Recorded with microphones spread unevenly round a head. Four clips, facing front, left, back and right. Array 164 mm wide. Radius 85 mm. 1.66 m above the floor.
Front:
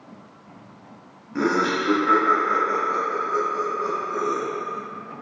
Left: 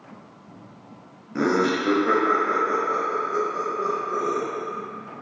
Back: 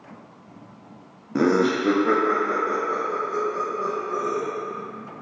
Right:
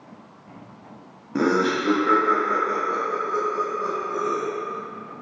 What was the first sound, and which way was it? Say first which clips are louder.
Laughter: right 1 dB, back 2 dB; 145° right.